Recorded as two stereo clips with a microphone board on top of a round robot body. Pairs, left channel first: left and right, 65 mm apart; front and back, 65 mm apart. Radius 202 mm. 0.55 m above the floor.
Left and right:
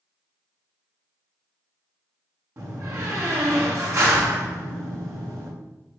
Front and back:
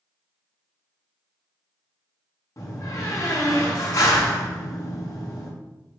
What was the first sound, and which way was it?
A door slam, 45° right.